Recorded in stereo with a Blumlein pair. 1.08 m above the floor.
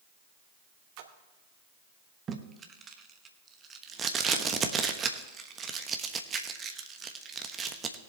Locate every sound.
1.0 s a splash: 45° right, 1.2 m
2.3 s tape being pulled: 20° right, 1.1 m